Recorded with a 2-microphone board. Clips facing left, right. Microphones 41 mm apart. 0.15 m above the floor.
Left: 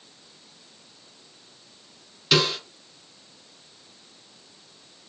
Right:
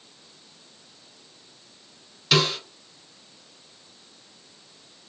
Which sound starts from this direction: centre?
A snare drum, at 2.3 s.